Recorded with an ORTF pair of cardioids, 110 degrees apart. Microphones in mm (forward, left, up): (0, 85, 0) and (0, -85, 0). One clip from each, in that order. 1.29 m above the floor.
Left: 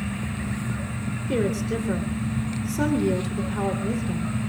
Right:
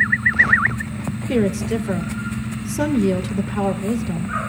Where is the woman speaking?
25° right, 3.5 m.